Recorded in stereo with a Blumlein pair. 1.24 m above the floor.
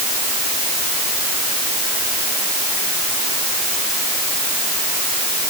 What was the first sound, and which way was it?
Only background noise.